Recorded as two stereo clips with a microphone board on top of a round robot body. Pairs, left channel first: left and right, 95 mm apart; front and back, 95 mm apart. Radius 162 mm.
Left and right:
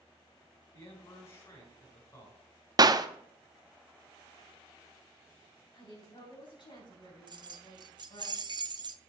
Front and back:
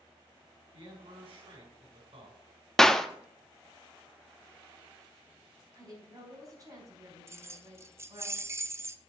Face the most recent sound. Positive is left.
turn(degrees=-120)